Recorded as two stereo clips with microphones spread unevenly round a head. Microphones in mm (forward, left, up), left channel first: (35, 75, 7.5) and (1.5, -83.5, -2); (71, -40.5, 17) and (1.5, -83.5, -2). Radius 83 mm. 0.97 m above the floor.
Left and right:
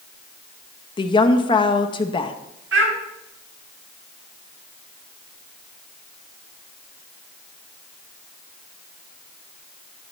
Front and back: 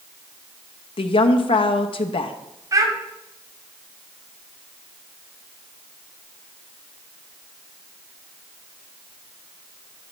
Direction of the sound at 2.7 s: 105° right.